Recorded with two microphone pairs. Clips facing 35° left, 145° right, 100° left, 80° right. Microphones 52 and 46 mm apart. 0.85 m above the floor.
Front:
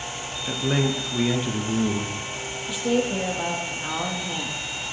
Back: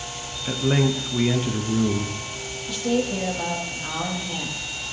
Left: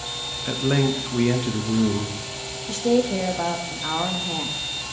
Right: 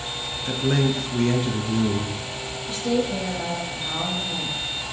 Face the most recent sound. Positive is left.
turn(degrees=105)